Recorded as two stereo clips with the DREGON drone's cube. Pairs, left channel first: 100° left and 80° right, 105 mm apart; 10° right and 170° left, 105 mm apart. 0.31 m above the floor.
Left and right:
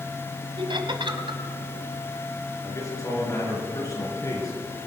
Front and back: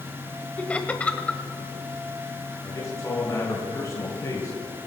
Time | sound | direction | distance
0.6 | laughter | 85° right | 1.3 m
2.6 | a man speaking | 45° left | 4 m